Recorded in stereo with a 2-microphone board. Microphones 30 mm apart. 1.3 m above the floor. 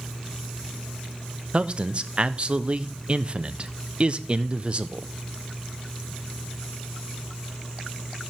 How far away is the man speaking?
About 0.6 m.